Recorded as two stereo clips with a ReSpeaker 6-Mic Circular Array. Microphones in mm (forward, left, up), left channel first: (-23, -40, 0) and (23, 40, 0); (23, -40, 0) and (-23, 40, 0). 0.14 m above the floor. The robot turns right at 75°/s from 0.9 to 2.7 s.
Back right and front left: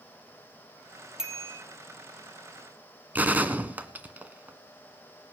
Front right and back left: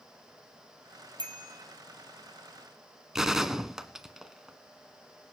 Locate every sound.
1.2 s a bicycle bell: 140° left, 3 m; by 1.6 s 170° left, 3 m
3.1 s a gunshot: 45° left, 1.6 m